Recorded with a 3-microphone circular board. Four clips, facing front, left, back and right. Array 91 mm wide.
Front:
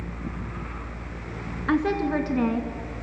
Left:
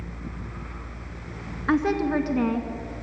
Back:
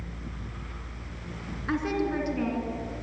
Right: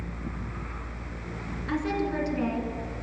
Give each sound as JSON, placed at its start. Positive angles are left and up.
{"t": 1.7, "sound": "a woman speaking", "azimuth_deg": 65, "distance_m": 2.5}